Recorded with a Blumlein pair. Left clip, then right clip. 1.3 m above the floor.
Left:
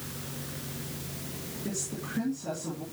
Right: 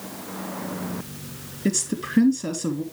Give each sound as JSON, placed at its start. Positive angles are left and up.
{"t": 1.6, "sound": "a woman speaking", "azimuth_deg": -35, "distance_m": 2.5}